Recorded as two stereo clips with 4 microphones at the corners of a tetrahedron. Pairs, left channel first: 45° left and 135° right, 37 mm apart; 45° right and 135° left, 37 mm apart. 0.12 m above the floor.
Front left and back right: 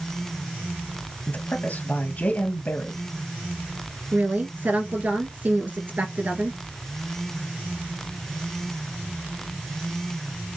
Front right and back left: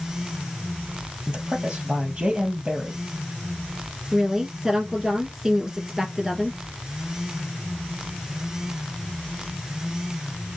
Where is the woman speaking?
145° right, 2 m.